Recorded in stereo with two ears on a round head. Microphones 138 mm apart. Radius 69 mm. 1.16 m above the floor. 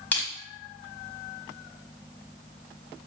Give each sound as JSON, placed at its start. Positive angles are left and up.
{"t": 0.1, "sound": "crushing", "side_deg": 15, "distance_m": 1.1}